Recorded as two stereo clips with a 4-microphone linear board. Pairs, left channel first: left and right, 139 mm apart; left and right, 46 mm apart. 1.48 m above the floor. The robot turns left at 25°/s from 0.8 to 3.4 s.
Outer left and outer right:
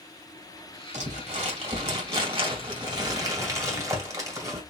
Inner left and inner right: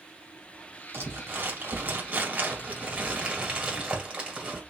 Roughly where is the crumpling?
Right.